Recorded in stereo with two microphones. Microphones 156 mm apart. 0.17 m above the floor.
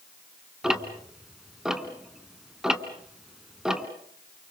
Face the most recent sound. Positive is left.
turn(degrees=-5)  # may be behind; listen again after turning